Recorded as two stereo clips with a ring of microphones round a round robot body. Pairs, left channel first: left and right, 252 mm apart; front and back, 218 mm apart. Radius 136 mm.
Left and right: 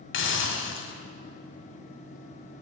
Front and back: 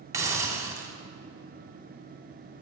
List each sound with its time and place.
0.1 s a hiss: 105° left, 1.1 m